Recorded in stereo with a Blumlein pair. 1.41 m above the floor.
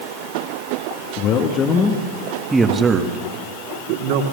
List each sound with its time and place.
1.2 s a man speaking: 40° left, 2 m; by 4.2 s 50° right, 3 m